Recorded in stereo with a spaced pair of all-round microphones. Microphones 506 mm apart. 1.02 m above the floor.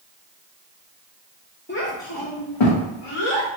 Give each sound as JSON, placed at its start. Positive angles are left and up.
{"t": 1.7, "sound": "a child speaking", "side_deg": 20, "distance_m": 0.6}